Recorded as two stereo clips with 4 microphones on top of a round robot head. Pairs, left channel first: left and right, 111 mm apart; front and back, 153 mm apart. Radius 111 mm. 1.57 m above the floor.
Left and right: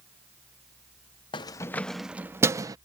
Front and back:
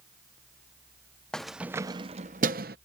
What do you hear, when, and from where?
1.3 s keys jangling: 80° left; by 2.8 s 140° right